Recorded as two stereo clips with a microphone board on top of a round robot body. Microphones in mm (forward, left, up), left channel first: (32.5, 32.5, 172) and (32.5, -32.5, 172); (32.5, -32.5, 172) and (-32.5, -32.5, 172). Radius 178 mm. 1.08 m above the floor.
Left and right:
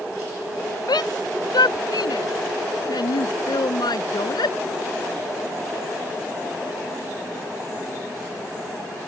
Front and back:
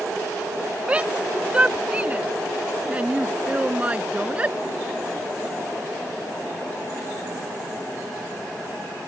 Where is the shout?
105° left; by 4.5 s 110° left.